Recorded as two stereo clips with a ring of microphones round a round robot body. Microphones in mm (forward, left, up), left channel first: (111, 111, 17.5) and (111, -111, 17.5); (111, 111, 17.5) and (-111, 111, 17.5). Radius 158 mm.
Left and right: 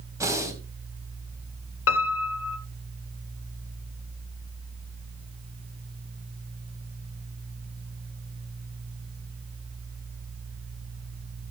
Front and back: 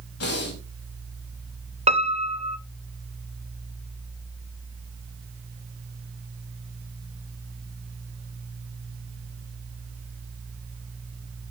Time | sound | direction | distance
0.2 | breathing | 15° right | 3.5 m
1.9 | a piano | 120° left | 0.9 m